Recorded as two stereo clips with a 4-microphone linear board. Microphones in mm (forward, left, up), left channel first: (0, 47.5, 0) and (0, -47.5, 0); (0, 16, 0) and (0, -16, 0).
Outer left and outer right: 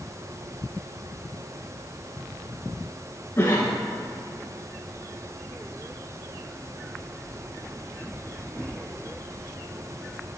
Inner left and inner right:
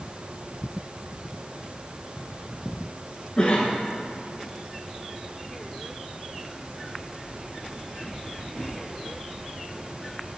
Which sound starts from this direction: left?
A cough, at 3.4 s.